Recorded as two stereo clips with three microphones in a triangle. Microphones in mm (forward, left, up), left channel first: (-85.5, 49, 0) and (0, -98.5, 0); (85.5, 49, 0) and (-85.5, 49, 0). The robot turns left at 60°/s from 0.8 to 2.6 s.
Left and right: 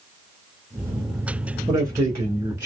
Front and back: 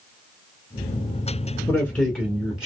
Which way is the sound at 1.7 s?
50° right.